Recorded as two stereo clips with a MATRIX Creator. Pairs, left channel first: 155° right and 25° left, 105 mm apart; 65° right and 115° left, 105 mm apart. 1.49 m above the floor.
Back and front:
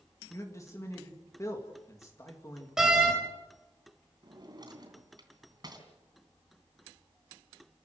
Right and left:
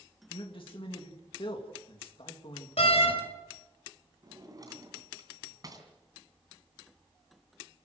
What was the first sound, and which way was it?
A man speaking, 100° right.